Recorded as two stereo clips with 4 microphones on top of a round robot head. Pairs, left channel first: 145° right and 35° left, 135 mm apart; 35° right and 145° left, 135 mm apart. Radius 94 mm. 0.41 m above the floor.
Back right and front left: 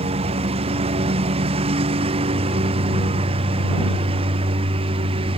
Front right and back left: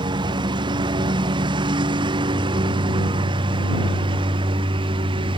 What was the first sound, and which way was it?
A lawn mower, 85° left.